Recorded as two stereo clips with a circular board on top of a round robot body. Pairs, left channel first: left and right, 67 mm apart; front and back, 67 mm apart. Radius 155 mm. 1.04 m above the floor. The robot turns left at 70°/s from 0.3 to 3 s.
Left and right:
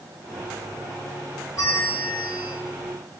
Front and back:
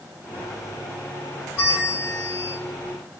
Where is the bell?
55° left, 2.5 m; by 2.6 s 15° right, 2.5 m.